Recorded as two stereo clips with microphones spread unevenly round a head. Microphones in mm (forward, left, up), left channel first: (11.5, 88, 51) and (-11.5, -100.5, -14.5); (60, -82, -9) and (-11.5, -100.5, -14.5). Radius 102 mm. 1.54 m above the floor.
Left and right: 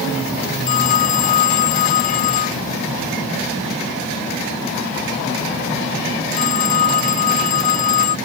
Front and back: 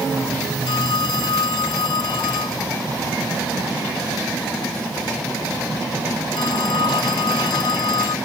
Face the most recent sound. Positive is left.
turn(degrees=40)